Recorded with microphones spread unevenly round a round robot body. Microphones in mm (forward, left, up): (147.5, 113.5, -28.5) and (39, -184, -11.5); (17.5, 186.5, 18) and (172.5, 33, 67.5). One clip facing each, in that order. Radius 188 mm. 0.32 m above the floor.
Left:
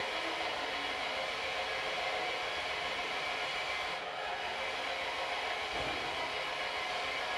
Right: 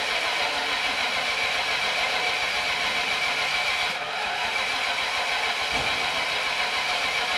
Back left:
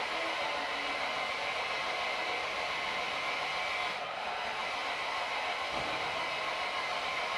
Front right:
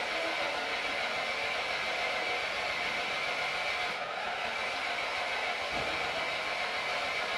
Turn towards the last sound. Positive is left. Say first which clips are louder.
# right 7 dB, front right 2 dB
turn(degrees=-120)